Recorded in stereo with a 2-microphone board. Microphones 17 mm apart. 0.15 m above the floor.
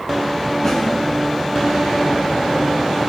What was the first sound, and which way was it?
A snare drum, 35° left (ahead or behind).